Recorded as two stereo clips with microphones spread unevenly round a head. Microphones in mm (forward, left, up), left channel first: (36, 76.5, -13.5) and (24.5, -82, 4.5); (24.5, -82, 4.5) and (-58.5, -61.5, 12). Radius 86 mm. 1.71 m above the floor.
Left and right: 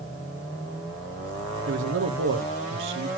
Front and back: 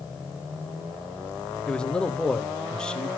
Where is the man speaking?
95° right, 1.2 m.